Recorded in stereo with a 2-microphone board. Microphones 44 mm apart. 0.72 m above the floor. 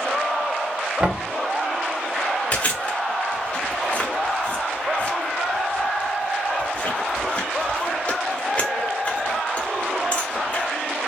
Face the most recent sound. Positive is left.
turn(degrees=30)  # may be behind; listen again after turning